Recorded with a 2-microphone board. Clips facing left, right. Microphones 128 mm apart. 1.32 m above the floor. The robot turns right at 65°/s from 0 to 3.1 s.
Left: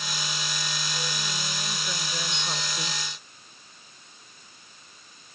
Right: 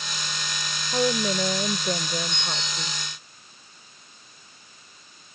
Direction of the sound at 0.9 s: 115° right.